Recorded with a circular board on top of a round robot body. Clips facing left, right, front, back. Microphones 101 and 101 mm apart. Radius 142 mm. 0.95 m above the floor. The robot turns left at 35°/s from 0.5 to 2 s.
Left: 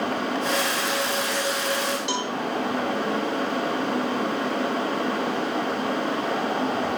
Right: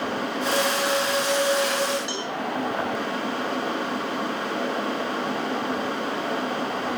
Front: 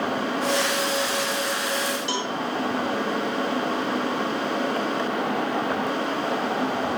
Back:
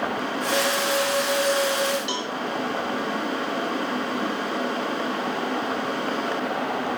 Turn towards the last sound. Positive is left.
turn(degrees=55)